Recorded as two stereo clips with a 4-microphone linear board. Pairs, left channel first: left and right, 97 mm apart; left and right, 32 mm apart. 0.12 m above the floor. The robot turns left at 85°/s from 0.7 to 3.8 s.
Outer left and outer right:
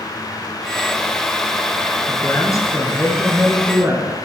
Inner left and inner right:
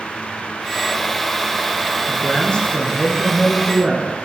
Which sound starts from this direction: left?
A man speaking, at 2.1 s.